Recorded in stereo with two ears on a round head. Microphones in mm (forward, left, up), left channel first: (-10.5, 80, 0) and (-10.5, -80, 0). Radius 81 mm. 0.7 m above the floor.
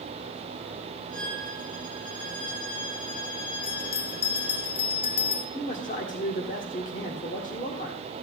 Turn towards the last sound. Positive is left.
turn(degrees=45)  # may be behind; listen again after turning